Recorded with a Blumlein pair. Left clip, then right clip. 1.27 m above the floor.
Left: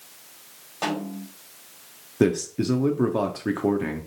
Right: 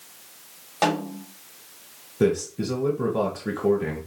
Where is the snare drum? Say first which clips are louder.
Right 5 dB; 65° right, 1.4 m.